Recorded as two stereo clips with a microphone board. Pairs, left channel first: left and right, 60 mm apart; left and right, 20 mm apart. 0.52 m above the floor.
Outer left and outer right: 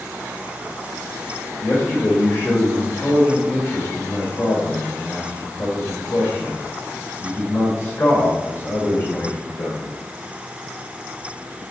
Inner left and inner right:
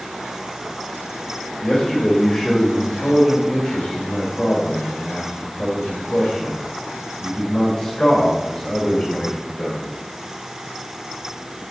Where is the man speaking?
50° left (ahead or behind), 2 m.